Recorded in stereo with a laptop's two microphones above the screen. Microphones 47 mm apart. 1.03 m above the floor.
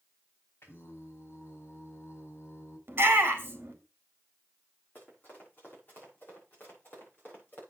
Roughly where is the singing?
Left.